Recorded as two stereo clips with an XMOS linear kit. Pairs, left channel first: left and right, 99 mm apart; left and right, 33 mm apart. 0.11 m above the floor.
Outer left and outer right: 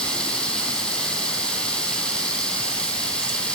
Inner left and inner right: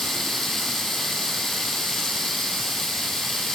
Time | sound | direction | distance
0.0 | running water | 10° left (ahead or behind) | 1.9 m